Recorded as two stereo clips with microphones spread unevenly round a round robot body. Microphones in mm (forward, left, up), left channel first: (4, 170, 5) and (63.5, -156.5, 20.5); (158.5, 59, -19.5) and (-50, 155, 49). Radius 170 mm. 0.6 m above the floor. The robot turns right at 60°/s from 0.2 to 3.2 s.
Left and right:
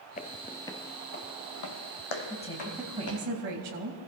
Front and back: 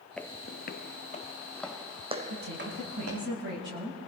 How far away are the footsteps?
About 0.6 m.